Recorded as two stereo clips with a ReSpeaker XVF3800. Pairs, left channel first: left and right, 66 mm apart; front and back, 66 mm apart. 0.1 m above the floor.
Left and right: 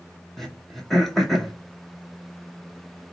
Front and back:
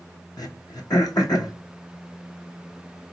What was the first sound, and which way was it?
Throat clearing, 5° left.